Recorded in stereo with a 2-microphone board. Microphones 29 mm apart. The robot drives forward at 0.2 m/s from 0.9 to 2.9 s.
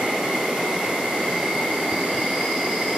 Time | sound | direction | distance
0.0 | an insect | 45° right (ahead or behind) | 1.0 m